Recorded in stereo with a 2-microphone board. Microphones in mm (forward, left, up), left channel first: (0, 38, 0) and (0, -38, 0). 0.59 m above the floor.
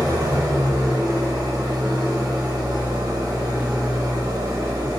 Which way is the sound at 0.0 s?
55° right (ahead or behind).